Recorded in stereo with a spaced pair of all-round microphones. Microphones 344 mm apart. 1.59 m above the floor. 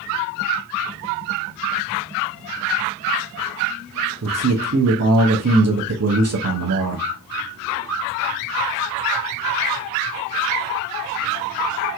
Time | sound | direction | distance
4.2 | a man speaking | 50° right (ahead or behind) | 0.6 m